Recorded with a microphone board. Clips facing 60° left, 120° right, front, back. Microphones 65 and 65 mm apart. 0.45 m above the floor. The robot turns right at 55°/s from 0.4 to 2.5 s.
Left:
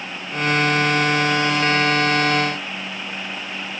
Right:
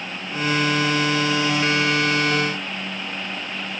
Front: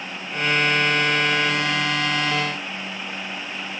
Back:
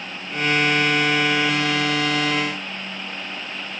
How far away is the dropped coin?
I don't hear a dropped coin.